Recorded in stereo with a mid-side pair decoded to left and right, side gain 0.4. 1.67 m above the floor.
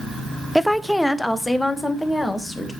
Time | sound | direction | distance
0.6 | a woman speaking | straight ahead | 0.7 m